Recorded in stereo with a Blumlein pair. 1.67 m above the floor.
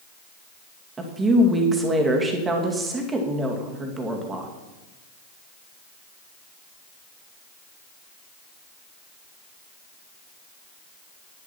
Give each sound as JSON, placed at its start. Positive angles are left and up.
{"t": 1.0, "sound": "a woman speaking", "azimuth_deg": -15, "distance_m": 2.5}